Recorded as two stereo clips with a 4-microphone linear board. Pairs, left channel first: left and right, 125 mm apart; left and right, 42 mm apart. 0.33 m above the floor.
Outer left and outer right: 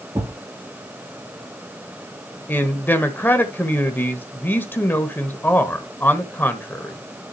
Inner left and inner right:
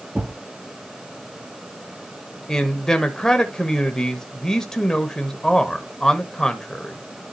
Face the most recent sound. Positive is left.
turn(degrees=15)  # may be behind; listen again after turning